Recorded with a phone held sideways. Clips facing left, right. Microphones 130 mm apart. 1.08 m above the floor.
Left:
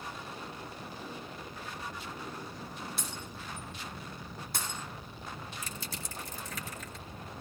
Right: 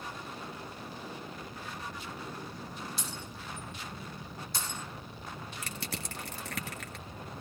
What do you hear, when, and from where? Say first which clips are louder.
3.0 s breaking glass: even; 55° left (ahead or behind), 4.5 m
5.6 s crushing: right 2 dB; 70° right (ahead or behind), 1.4 m